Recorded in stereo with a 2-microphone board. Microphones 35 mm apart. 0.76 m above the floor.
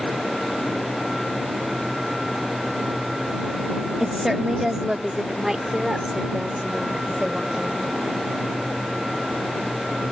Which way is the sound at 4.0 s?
10° right (ahead or behind).